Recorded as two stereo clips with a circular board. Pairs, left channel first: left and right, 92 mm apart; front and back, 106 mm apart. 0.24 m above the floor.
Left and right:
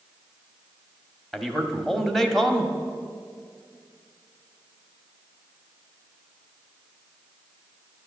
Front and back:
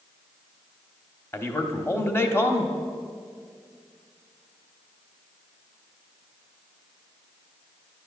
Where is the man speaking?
5° left, 1.0 m.